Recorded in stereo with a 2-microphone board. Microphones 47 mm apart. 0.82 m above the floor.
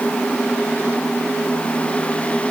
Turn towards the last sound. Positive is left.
No sound to turn to.